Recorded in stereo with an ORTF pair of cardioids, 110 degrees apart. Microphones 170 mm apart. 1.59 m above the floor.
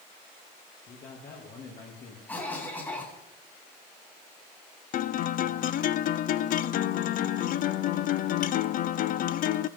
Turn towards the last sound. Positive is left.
turn(degrees=55)